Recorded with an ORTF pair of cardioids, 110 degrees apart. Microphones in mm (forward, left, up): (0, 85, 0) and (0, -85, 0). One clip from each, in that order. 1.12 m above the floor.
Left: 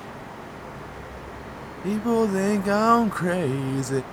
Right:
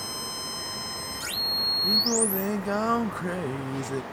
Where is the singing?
25° left.